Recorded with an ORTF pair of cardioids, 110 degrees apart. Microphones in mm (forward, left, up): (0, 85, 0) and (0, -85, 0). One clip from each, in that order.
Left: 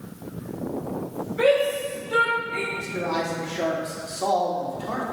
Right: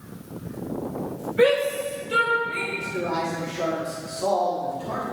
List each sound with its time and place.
1.4 s a shout: 20° right, 2.5 m; by 2.6 s 25° right, 3.5 m
2.7 s a man speaking: 30° left, 2 m